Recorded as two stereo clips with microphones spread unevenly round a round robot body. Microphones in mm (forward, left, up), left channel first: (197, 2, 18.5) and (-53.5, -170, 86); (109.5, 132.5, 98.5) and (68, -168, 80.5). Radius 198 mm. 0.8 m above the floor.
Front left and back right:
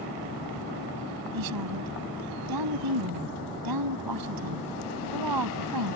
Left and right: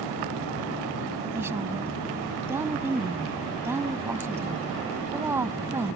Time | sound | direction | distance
1.3 | a woman speaking | straight behind | ?